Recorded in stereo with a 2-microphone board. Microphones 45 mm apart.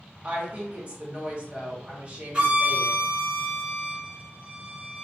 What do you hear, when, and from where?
0.2 s a woman speaking: 30° right (ahead or behind), 1.0 m
2.3 s a violin: 20° right (ahead or behind), 1.2 m